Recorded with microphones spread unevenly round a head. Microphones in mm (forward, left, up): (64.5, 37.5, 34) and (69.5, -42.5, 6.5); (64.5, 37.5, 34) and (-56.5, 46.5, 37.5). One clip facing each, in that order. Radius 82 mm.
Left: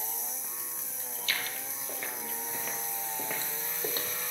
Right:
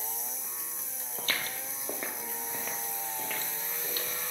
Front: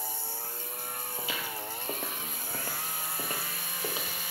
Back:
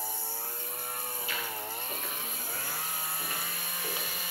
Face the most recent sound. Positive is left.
turn(degrees=65)